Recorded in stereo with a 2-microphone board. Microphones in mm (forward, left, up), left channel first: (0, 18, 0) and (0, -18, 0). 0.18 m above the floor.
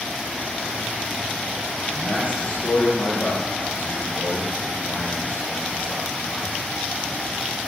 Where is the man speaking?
55° left (ahead or behind), 5.5 m; by 6.5 s 65° left (ahead or behind), 10 m.